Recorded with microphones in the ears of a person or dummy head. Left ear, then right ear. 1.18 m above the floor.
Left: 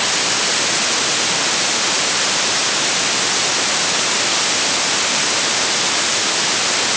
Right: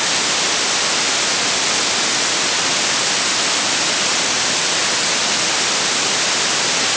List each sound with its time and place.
Only background noise.